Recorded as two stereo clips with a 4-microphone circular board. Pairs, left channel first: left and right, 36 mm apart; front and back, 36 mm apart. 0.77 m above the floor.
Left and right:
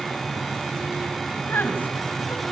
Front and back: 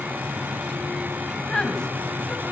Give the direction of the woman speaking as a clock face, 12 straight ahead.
10 o'clock.